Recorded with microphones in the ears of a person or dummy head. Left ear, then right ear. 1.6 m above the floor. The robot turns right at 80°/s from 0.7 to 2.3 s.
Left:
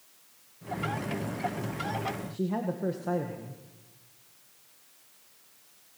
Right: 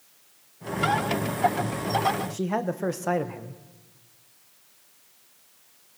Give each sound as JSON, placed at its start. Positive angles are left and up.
{"t": 2.3, "sound": "a man speaking", "side_deg": -50, "distance_m": 1.5}